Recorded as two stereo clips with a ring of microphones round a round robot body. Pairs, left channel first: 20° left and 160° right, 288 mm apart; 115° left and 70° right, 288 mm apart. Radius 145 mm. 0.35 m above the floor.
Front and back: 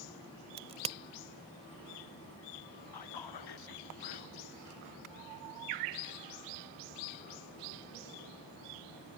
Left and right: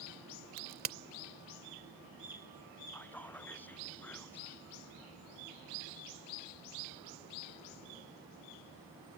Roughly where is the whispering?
Ahead left.